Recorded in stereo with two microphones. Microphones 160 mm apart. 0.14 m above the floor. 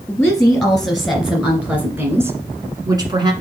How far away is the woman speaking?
About 2 m.